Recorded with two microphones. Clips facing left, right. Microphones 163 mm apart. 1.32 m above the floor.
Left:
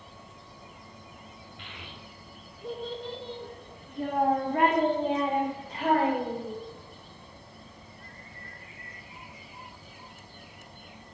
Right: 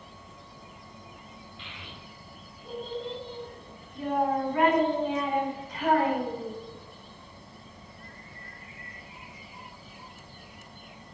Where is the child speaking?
60° left (ahead or behind), 3 m; by 6.5 s 25° left (ahead or behind), 4.5 m.